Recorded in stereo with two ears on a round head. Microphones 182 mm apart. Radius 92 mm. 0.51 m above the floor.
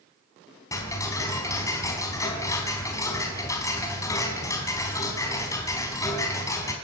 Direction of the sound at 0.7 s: 15° left (ahead or behind).